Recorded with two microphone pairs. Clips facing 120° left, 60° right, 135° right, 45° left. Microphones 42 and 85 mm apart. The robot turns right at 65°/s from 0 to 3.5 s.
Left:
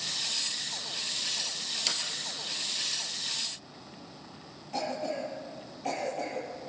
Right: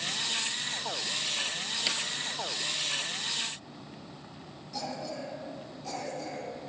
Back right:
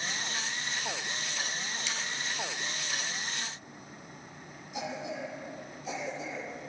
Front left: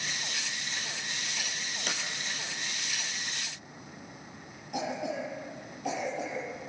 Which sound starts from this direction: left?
A cough, at 4.7 s.